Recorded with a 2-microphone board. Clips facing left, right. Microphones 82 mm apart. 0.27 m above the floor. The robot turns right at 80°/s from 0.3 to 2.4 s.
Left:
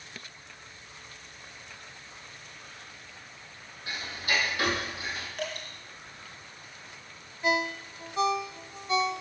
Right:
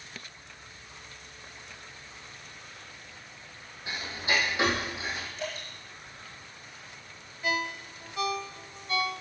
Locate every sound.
3.9 s ticking: 20° right (ahead or behind), 3 m
5.4 s dripping: 60° left (ahead or behind), 4 m
7.4 s a ringtone: 25° left (ahead or behind), 0.5 m